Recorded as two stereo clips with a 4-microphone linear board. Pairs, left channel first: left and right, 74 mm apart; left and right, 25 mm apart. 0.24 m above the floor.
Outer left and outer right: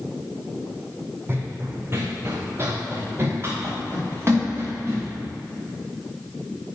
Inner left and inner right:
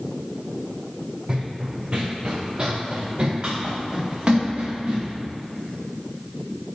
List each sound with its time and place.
1.3 s running footsteps: 30° right (ahead or behind), 0.7 m; by 5.1 s 35° right (ahead or behind), 3 m